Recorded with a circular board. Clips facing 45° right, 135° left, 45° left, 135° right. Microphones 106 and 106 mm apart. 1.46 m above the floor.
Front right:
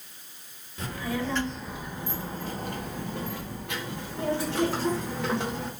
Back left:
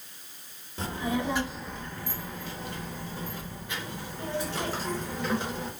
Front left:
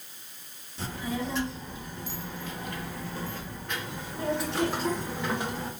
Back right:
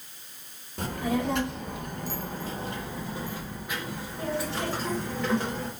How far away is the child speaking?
About 0.9 m.